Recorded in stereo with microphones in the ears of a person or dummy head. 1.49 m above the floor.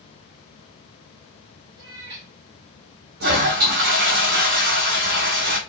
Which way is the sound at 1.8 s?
30° right (ahead or behind).